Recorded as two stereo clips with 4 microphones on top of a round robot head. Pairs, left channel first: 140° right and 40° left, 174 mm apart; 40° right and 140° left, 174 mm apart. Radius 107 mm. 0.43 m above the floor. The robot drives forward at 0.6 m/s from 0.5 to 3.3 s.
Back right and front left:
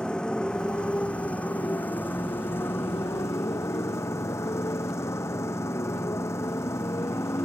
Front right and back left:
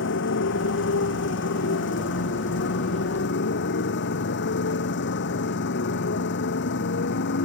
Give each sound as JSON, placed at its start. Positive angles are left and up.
{"t": 0.0, "sound": "a motorcycle", "azimuth_deg": -55}